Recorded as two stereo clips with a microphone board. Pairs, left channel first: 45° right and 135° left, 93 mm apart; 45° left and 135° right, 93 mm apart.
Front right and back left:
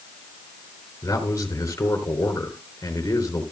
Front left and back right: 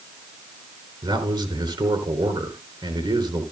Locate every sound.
1.0 s a man speaking: 100° right, 4 m